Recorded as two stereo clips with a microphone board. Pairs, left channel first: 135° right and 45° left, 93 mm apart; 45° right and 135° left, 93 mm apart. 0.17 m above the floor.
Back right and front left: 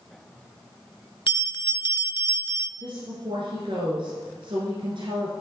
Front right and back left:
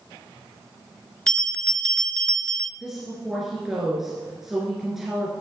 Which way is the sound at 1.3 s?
125° right.